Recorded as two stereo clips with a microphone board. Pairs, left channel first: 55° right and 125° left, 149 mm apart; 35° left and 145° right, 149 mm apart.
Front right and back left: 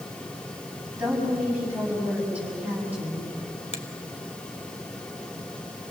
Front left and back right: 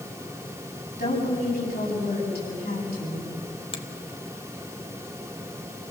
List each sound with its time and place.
1.0 s a woman speaking: 45° left, 8 m
3.7 s a finger snap: 15° right, 1.4 m